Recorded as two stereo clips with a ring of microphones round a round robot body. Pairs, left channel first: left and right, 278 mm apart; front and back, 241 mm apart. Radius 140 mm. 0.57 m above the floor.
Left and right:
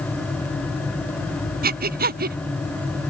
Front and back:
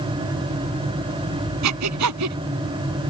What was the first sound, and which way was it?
Breathing, 150° right.